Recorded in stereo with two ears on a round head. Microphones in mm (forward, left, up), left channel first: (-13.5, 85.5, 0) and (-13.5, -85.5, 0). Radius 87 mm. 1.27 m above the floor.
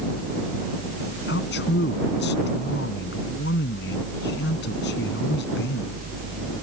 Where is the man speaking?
55° left (ahead or behind).